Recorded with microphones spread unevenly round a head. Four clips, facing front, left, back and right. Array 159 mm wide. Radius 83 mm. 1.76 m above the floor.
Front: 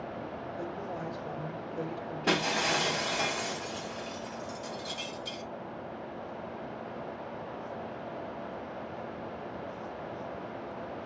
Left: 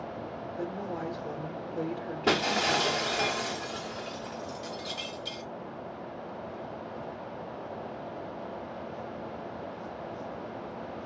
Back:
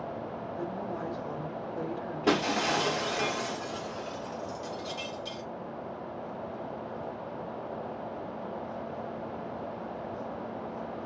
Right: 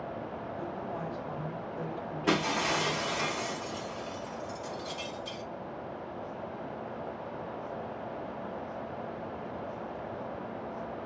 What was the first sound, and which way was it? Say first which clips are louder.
A woman speaking: left 4 dB, back 3 dB; 110° left.